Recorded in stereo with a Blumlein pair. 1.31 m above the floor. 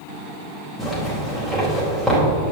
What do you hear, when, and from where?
0.8 s a zipper: straight ahead, 4 m